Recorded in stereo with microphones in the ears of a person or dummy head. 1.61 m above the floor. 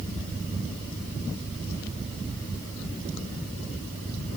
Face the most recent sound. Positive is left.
No sound to turn to.